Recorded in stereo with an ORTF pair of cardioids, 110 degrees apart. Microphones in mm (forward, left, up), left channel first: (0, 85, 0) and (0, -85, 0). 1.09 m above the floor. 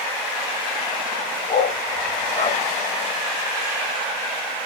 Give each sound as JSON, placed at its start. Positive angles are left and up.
{"t": 1.5, "sound": "a dog barking", "azimuth_deg": 40, "distance_m": 3.0}